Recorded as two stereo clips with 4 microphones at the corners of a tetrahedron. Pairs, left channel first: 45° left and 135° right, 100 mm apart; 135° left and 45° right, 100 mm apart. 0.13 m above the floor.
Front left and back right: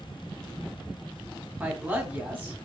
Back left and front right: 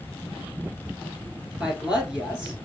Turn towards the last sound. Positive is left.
turn(degrees=-115)